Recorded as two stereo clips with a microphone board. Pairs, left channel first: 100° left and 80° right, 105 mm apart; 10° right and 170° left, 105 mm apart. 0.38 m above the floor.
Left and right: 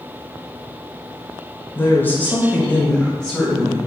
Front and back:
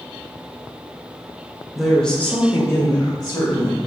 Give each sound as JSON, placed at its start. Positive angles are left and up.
{"t": 1.8, "sound": "a woman speaking", "azimuth_deg": 85, "distance_m": 1.0}